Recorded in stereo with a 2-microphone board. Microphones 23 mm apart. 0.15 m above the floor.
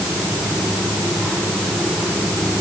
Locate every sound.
Only background noise.